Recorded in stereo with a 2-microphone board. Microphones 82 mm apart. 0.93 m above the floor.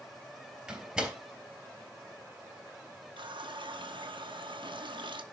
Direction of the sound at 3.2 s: 90° right.